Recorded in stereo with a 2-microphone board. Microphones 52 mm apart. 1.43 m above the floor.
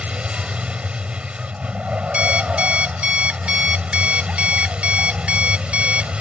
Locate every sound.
0.0 s a vehicle: 25° right (ahead or behind)
2.1 s an alarm clock: 25° right (ahead or behind)